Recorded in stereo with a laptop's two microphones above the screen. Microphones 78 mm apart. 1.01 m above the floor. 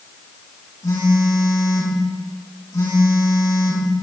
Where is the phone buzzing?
55° left (ahead or behind), 6.5 m.